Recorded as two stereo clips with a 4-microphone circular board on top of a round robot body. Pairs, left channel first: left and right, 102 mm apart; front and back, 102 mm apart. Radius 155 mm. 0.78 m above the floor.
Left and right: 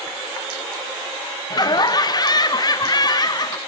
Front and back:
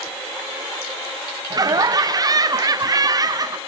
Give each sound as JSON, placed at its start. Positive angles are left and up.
{"t": 1.5, "sound": "laughter", "azimuth_deg": 135, "distance_m": 0.5}